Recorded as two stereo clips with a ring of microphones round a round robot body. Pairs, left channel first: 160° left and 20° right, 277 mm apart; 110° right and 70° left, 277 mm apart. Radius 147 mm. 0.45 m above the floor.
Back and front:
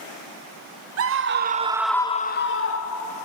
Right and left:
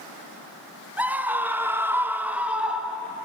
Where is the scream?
15° right, 1.6 m; by 3.1 s 155° left, 2.0 m.